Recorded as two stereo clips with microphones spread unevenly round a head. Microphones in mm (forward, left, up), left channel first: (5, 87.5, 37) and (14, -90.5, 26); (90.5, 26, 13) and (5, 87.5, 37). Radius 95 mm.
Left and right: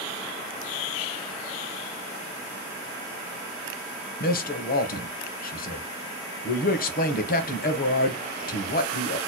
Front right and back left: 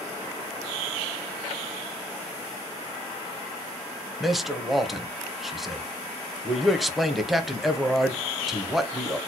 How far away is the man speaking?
About 1.0 m.